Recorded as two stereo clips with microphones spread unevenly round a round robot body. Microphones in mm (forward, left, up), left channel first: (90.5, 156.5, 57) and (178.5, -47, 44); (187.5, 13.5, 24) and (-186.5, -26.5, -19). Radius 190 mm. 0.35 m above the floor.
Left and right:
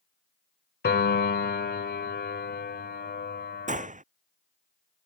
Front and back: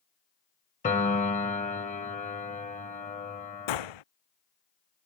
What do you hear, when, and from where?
0.8 s a piano: 80° left
3.7 s a gunshot: 10° right